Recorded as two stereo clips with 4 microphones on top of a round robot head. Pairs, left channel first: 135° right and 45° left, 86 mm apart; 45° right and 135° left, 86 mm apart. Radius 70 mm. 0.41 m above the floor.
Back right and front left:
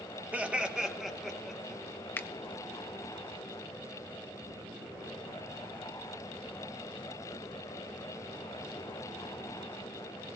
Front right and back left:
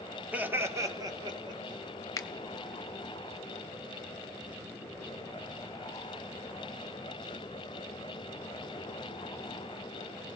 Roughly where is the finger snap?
Right.